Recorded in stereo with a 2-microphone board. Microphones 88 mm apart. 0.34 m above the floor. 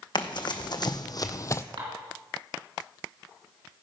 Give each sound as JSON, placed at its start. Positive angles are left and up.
{"t": 0.1, "sound": "running footsteps", "side_deg": 65, "distance_m": 1.2}
{"t": 1.8, "sound": "dishes clattering", "side_deg": -75, "distance_m": 2.5}